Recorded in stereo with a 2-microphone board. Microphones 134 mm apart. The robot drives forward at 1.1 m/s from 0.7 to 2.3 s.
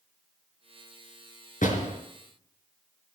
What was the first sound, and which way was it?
A door slam, 75° left (ahead or behind).